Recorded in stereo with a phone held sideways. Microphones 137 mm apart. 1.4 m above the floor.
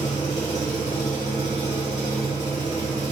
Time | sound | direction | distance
0.0 | an engine running | 55° left (ahead or behind) | 2 m